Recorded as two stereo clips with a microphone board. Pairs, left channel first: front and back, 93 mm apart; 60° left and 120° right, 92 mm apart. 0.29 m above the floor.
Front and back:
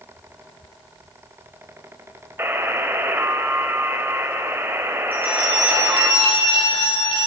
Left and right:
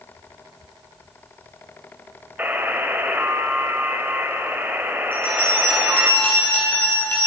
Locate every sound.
2.4 s a buzzer: 160° right, 1.5 m
5.1 s a bell: 15° right, 8.5 m